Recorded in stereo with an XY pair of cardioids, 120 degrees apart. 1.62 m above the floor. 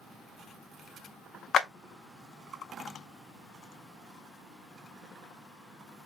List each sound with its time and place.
1.5 s a clap: 50° left, 0.6 m